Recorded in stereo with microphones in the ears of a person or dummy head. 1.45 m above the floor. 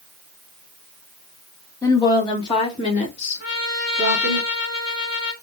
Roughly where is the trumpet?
Left.